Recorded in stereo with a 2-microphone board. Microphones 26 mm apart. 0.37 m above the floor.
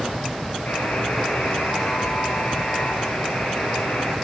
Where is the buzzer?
80° left, 10 m.